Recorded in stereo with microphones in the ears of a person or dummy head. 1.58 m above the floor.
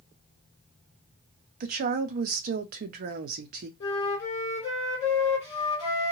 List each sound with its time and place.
1.6 s a woman speaking: 45° right (ahead or behind), 0.6 m
3.8 s a flute: 30° left (ahead or behind), 1.8 m